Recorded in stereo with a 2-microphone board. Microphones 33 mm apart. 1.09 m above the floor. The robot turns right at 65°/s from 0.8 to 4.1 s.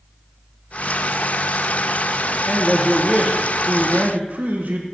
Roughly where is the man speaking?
Behind left.